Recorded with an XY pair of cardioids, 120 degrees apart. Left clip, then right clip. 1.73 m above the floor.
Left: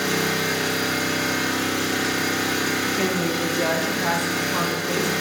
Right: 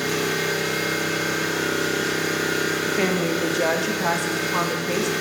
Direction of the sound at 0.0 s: 45° left.